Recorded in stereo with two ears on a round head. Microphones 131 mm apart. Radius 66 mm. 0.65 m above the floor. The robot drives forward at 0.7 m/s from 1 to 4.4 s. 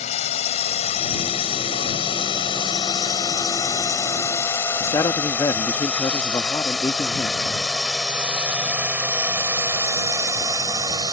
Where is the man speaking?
20° left (ahead or behind).